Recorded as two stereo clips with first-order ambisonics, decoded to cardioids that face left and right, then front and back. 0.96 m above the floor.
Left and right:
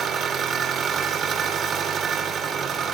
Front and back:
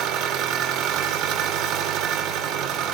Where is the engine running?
145° right, 1.1 m.